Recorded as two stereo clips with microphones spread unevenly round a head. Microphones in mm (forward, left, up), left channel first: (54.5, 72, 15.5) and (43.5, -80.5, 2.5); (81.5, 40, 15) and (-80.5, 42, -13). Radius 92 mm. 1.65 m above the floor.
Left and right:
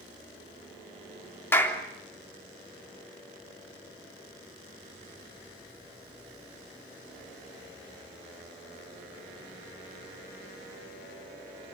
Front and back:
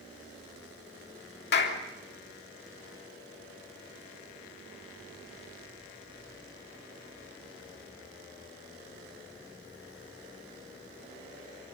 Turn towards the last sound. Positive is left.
turn(degrees=10)